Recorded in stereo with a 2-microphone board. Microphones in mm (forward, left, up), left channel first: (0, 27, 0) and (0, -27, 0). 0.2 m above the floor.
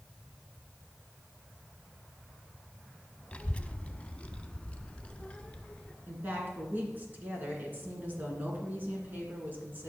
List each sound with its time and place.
3.3 s a child speaking: 25° left (ahead or behind), 0.6 m; by 5.9 s 20° left (ahead or behind), 1.6 m
6.1 s a woman speaking: 40° right (ahead or behind), 2.5 m